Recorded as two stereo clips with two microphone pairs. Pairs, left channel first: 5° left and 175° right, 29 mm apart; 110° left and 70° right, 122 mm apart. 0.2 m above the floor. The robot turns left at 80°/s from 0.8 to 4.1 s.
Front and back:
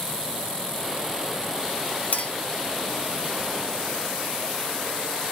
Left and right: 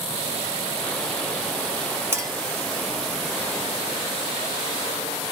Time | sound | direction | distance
2.1 | a clink | 5° right | 1.2 m